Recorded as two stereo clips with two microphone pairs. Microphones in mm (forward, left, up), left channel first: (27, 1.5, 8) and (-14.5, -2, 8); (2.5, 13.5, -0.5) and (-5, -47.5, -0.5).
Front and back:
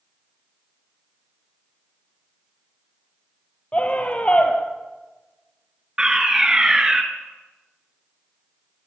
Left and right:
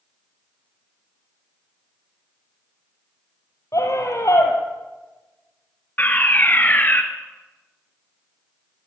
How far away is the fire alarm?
About 3 m.